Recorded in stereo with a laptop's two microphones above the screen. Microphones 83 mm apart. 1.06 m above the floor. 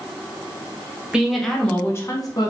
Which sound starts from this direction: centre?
A woman speaking, at 1.1 s.